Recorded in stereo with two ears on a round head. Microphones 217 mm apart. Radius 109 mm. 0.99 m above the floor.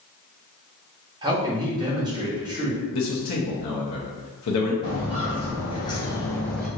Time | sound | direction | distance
1.2 | a man speaking | 15° right (ahead or behind) | 0.9 m
2.9 | a man speaking | 75° left (ahead or behind) | 0.7 m
4.8 | footsteps | 20° left (ahead or behind) | 2.0 m